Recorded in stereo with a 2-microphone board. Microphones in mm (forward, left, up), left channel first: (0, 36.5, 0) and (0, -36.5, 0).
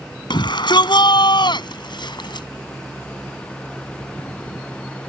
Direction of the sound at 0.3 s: 80° left.